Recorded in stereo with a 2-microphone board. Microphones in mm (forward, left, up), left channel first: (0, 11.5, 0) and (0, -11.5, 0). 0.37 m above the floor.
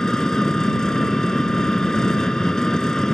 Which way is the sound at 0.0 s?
25° left (ahead or behind).